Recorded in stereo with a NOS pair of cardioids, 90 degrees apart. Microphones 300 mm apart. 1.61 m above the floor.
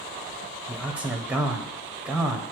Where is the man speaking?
5° right, 0.8 m.